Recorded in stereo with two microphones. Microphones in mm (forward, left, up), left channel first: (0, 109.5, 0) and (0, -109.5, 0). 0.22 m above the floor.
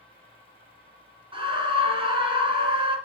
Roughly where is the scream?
Right.